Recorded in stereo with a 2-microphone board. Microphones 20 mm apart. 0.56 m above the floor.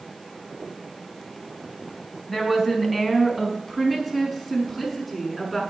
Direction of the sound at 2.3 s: 10° left (ahead or behind).